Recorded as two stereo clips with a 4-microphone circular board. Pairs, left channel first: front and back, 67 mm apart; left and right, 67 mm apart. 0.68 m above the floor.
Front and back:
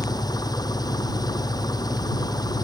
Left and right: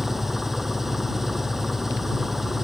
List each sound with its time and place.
0.0 s an engine running: 5° right